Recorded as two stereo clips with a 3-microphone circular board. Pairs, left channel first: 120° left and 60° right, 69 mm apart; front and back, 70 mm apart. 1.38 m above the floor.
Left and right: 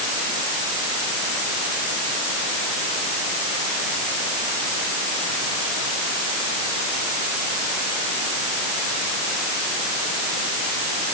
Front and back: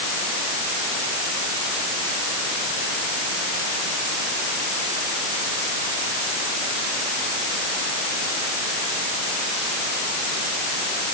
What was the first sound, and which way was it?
Only background noise.